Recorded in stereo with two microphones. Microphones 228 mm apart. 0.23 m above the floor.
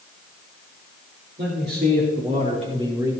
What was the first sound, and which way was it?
A man speaking, 50° right (ahead or behind).